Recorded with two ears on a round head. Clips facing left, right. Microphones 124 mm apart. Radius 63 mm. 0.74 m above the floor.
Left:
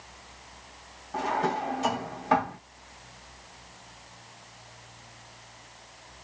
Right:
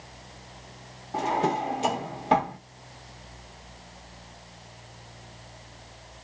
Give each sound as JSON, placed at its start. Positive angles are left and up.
{"t": 1.1, "sound": "a drawer", "side_deg": -25, "distance_m": 0.9}